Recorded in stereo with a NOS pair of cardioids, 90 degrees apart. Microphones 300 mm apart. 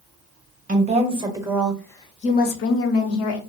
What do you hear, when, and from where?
0.7 s a woman speaking: 25° right, 1.0 m; by 3.4 s 70° left, 0.9 m